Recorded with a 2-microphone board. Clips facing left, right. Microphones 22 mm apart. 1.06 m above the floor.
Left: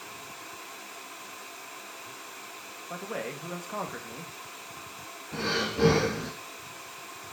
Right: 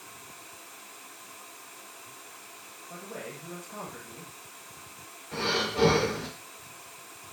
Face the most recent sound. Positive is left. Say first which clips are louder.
# right 1 dB
turn(degrees=-80)